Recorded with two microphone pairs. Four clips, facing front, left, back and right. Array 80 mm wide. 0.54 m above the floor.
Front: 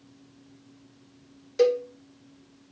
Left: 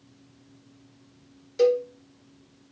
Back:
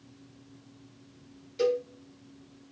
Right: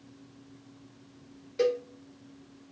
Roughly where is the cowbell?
Ahead.